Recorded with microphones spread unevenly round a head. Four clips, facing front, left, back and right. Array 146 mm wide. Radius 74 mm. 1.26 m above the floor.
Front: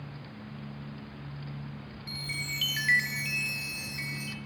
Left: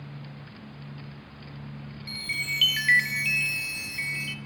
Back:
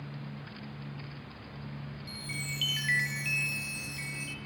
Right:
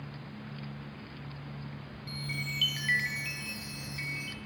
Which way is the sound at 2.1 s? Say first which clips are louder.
Left 3 dB, front 3 dB; 50° left.